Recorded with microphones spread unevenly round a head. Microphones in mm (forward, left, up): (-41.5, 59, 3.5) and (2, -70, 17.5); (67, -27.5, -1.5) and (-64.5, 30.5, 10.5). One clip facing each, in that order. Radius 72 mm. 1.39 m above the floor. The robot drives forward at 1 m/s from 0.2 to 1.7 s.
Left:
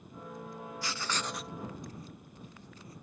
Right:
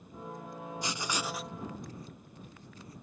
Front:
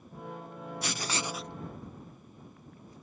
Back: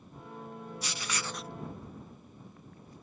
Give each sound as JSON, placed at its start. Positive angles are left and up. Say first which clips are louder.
{"t": 0.8, "sound": "writing", "louder": "right 2 dB, front 5 dB", "azimuth_deg": -15}